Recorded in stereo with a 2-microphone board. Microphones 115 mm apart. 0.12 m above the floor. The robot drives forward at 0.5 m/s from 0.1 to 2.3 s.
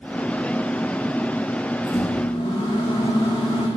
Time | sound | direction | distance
1.9 | a microwave | 40° left (ahead or behind) | 5 m